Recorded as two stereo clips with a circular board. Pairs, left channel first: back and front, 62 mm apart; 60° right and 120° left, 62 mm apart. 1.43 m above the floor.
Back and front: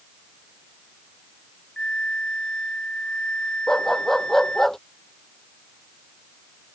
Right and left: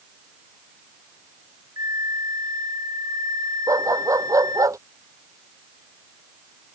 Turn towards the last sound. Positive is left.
turn(degrees=95)